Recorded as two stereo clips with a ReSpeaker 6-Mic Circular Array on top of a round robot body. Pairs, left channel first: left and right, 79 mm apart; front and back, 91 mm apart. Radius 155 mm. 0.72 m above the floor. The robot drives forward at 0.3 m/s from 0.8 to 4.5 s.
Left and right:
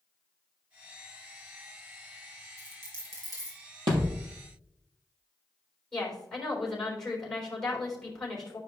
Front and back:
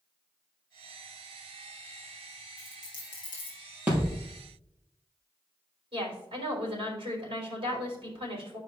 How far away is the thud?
About 3 m.